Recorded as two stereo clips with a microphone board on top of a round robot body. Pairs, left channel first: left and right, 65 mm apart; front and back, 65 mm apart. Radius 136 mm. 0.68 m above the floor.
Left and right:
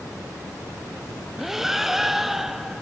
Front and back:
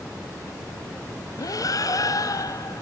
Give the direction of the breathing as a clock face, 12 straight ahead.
12 o'clock.